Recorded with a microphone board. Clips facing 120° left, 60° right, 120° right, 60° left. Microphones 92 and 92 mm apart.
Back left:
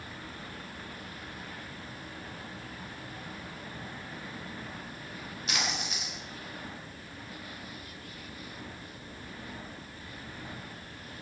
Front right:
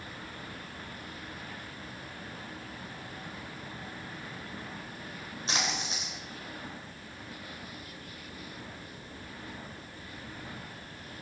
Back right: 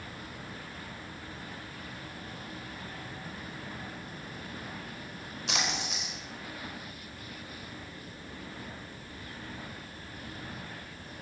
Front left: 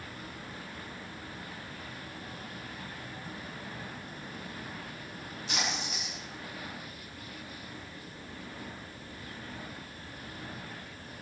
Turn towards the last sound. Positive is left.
turn(degrees=-120)